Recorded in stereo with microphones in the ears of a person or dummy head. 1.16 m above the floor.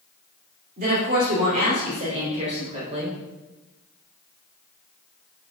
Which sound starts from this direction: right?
A woman speaking, at 0.8 s.